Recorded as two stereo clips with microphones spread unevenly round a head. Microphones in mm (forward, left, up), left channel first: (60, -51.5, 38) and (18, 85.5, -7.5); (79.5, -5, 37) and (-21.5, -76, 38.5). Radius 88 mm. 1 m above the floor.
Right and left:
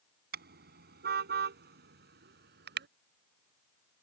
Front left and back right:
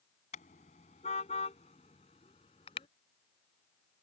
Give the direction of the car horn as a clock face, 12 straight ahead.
9 o'clock.